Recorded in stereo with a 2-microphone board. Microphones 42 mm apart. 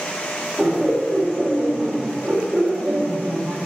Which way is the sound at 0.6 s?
10° right (ahead or behind).